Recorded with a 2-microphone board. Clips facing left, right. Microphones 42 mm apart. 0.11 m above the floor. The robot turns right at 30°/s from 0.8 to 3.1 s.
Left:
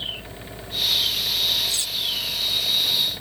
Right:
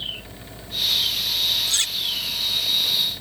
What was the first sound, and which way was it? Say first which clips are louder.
Cutlery clinking: right 3 dB; 60° right (ahead or behind).